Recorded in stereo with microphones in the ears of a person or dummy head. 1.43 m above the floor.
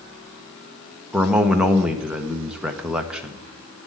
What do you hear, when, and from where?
1.1 s a man speaking: 10° right (ahead or behind), 1.0 m